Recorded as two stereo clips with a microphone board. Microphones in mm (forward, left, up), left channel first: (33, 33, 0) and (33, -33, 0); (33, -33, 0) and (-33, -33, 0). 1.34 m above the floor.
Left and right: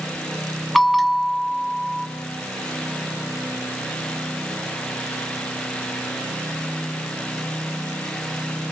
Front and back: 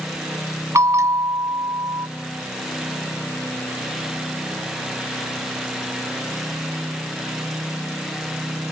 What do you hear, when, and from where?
0.8 s a bell: straight behind, 1.8 m